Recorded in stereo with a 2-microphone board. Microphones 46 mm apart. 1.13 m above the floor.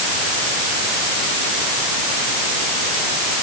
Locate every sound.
Only background noise.